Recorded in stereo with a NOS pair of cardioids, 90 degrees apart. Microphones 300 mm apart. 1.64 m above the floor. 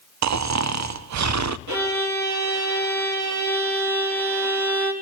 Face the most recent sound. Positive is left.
turn(degrees=-70)